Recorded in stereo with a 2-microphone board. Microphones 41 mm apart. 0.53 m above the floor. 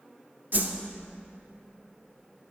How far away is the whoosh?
About 0.6 m.